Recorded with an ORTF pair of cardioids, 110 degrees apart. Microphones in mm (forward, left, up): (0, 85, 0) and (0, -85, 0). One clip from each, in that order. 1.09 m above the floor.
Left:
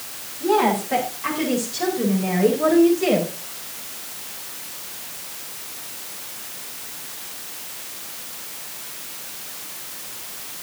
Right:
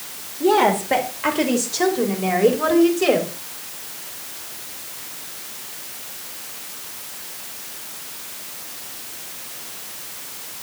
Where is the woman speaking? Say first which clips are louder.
Right 2 dB; 60° right, 3 m; by 3.3 s 55° right, 4.5 m.